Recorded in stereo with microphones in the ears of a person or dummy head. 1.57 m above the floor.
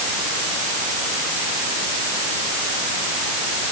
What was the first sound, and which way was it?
Only background noise.